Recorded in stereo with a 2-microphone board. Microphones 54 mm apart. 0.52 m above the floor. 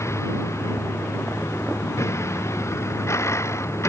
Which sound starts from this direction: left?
A vehicle, at 0.0 s.